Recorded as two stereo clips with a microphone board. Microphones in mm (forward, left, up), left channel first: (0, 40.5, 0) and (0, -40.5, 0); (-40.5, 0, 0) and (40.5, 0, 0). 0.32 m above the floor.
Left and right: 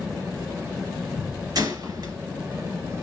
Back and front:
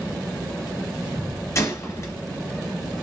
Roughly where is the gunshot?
Behind right.